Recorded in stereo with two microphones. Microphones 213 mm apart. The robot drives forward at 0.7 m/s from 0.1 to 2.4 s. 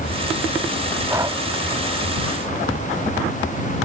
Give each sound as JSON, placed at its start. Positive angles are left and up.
{"t": 1.1, "sound": "breathing", "side_deg": -15}